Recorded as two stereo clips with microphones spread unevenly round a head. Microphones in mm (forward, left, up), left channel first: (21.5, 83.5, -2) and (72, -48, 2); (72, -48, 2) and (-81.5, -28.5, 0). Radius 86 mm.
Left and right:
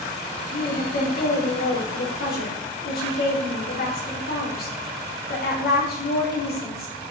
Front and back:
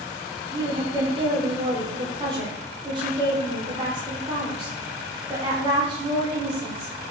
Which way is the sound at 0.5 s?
105° left.